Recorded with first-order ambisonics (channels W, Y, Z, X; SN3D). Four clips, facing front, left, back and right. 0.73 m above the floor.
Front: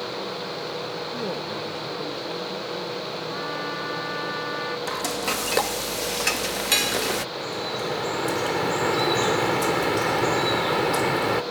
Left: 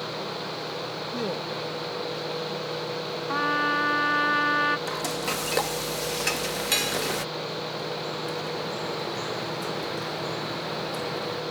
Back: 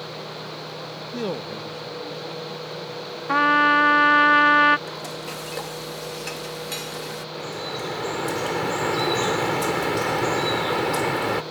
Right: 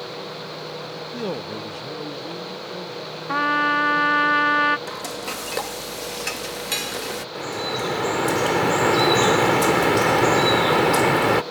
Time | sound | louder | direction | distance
1.1 | a man speaking | right 3 dB, back 4 dB | 165° left | ?
3.3 | a trumpet | right 5 dB, back 17 dB | 160° right | ?
4.9 | frying | left 1 dB, front 6 dB | 5° left | ?
7.3 | dripping | right 5 dB, front 2 dB | 90° right | ?